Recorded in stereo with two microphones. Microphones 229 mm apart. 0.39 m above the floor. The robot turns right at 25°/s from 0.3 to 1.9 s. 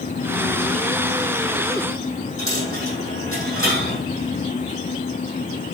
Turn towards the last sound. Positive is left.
turn(degrees=-70)  # may be behind; listen again after turning